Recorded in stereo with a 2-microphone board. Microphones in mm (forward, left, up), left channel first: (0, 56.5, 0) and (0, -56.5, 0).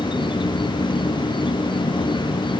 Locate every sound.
0.0 s an insect: 45° left (ahead or behind)